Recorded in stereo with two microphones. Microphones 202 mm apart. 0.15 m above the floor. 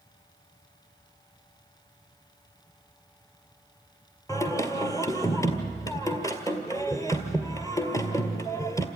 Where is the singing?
15° left (ahead or behind), 1.9 m.